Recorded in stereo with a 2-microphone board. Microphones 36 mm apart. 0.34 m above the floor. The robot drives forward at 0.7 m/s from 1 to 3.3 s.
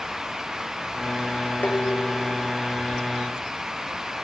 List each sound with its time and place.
1.6 s dishes clattering: 50° left (ahead or behind)